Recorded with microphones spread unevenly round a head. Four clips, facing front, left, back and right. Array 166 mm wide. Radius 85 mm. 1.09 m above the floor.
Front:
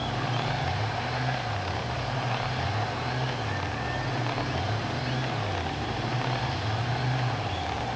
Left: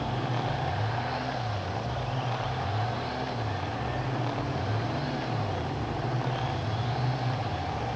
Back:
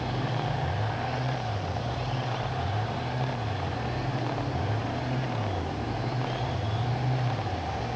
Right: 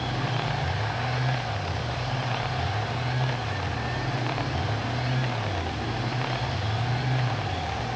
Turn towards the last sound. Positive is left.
No sound to turn to.